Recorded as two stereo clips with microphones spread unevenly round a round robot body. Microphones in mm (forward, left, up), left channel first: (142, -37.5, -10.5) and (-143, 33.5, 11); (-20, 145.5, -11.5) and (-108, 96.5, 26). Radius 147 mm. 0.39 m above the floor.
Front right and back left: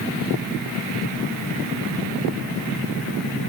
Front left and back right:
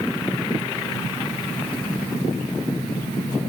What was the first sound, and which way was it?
Only background noise.